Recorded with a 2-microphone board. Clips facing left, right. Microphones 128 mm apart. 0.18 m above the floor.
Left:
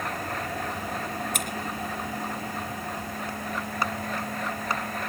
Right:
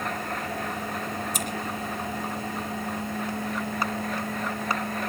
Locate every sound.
1.3 s scissors: 65° left (ahead or behind), 2.5 m